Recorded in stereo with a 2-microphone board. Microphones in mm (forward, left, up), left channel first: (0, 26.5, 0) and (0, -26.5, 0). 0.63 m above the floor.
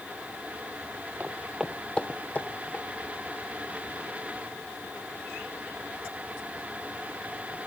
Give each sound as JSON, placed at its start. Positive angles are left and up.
{"t": 1.2, "sound": "footsteps", "side_deg": -35, "distance_m": 1.2}